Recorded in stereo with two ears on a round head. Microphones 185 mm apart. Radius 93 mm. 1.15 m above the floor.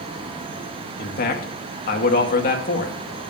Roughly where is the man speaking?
Left.